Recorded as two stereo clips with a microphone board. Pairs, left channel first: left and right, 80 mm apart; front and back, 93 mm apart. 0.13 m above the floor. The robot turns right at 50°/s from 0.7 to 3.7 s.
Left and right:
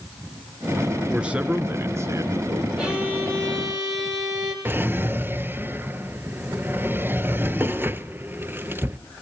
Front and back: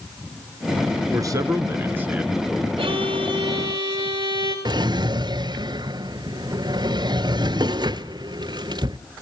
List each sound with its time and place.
1.1 s a man speaking: 165° right, 1.3 m; by 2.7 s 90° right, 1.3 m
2.8 s a violin: 170° right, 6.5 m; by 4.5 s 120° right, 6.5 m
4.7 s a drawer: 150° right, 0.6 m